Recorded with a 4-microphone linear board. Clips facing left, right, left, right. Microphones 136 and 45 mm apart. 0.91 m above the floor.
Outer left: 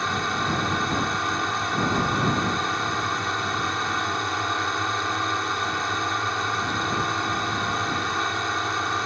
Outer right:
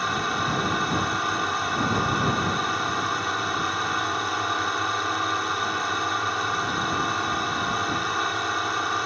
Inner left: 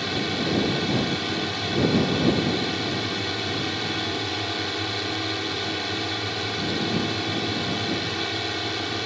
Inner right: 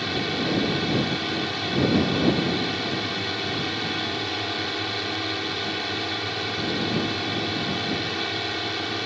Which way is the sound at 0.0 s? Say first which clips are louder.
Even, even; 5° right (ahead or behind).